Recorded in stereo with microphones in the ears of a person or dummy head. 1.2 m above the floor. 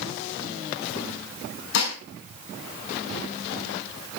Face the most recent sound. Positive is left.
turn(degrees=65)  # may be behind; listen again after turning